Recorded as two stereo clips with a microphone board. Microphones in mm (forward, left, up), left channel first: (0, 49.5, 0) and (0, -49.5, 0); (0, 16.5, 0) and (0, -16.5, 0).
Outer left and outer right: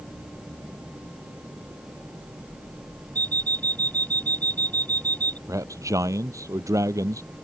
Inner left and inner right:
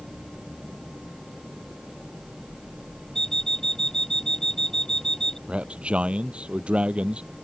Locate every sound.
3.1 s an alarm clock: 15° left (ahead or behind)
5.5 s a man speaking: 35° right (ahead or behind)